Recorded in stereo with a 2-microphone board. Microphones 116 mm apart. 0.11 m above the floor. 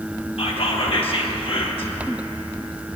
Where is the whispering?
55° left (ahead or behind), 2 m.